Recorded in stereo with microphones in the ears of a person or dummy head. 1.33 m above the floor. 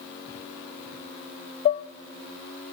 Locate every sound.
1.6 s dishes clattering: 30° left (ahead or behind), 0.6 m